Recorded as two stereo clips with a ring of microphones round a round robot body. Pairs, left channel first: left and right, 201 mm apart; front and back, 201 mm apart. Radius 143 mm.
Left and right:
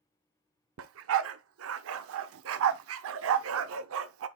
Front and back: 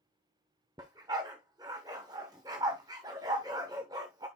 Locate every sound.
0.8 s a dog barking: 105° right, 0.6 m